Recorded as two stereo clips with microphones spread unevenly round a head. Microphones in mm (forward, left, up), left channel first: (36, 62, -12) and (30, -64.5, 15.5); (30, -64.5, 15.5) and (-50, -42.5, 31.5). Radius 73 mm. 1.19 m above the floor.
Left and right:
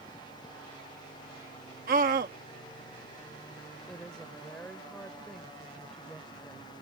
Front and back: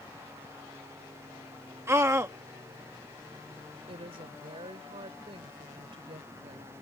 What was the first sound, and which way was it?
A scream, 135° right.